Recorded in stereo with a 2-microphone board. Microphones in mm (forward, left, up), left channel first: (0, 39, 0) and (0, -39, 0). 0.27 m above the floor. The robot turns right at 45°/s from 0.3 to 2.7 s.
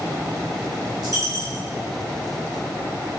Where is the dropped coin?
55° right, 1.2 m; by 1.7 s 25° right, 1.2 m.